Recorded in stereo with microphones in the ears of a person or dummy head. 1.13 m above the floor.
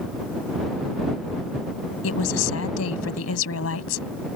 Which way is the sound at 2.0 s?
85° left.